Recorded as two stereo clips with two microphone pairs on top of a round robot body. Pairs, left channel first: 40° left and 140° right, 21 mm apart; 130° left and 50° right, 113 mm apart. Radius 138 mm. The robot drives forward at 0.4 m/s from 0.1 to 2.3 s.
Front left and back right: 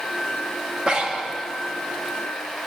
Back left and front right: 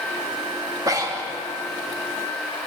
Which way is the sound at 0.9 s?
105° right.